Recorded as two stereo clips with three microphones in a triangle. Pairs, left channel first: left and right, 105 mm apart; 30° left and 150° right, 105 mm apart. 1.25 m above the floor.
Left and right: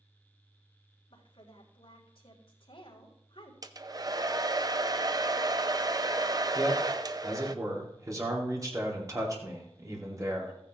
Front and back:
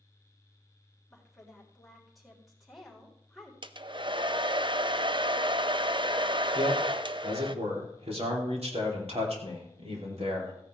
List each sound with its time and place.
1.1 s a woman speaking: 120° left, 3.5 m
3.6 s a hair dryer: 135° right, 0.5 m
6.5 s a man speaking: 145° right, 2.5 m